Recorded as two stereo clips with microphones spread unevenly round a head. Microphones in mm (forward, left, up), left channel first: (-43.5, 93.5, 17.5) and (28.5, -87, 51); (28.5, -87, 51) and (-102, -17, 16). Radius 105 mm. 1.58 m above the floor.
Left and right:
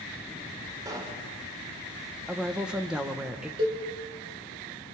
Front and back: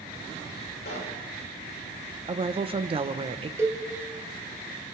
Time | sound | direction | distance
0.8 | a pop | straight ahead | 3.5 m
2.3 | a woman speaking | 155° right | 1.4 m
3.6 | a cowbell | 130° right | 2.5 m